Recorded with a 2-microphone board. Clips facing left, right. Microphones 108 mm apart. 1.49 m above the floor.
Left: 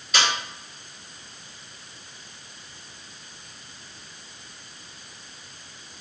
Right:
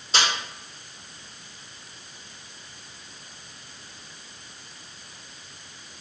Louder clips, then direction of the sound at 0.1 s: Left 1 dB; 30° right (ahead or behind).